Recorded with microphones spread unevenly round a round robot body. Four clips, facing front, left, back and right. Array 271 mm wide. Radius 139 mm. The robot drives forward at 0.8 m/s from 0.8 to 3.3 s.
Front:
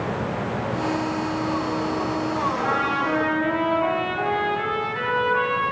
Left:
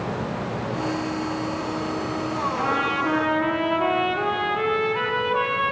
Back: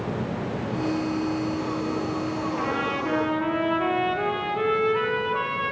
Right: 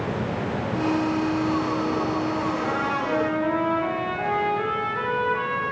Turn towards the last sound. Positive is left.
turn(degrees=150)